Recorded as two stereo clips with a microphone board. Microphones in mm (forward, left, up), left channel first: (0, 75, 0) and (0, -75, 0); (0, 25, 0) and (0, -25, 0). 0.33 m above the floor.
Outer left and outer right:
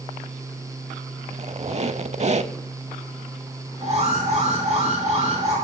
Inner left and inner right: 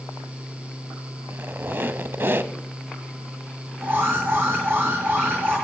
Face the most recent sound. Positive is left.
turn(degrees=-45)  # may be behind; listen again after turning